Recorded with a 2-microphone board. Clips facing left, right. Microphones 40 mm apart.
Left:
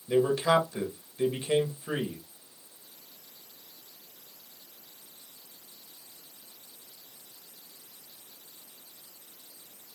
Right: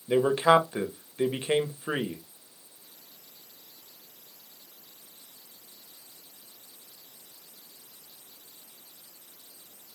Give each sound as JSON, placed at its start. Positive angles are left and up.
{"t": 0.1, "sound": "a man speaking", "side_deg": -40, "distance_m": 1.2}